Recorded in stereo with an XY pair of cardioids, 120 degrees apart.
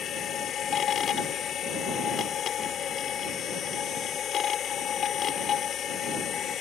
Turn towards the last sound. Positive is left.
turn(degrees=50)